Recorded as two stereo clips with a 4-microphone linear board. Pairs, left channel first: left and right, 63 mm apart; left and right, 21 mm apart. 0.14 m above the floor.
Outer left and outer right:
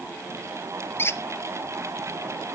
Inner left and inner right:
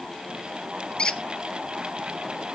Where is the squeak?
40° left (ahead or behind), 0.6 m.